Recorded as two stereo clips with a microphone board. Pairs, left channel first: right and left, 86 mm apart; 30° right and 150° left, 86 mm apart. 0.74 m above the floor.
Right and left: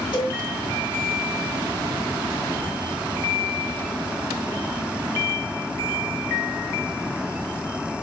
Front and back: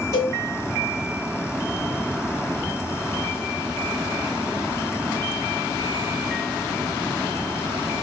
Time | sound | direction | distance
0.1 | a cowbell | 80° right | 1.7 m